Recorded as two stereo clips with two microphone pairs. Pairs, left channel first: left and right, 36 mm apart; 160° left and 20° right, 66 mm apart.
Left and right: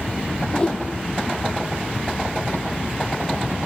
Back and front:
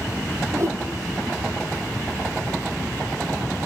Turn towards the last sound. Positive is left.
turn(degrees=25)